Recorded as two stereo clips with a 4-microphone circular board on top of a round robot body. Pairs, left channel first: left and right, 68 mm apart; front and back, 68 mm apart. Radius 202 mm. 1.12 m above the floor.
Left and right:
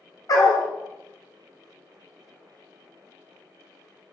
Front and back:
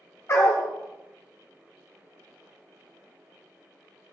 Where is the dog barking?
55° left, 1.0 m.